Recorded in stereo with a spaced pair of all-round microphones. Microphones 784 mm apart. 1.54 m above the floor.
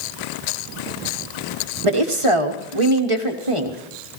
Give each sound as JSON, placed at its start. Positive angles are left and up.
{"t": 1.8, "sound": "a woman speaking", "side_deg": -40, "distance_m": 1.2}